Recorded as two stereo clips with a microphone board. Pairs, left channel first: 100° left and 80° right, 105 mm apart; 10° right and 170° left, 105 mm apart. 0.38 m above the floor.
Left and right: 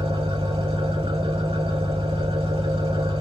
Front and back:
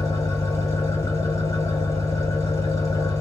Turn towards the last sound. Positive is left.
turn(degrees=-65)